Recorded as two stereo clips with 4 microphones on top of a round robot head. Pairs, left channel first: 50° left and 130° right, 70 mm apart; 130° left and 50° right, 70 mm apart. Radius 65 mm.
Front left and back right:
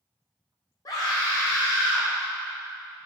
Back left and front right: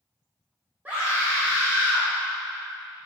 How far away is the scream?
About 1.9 m.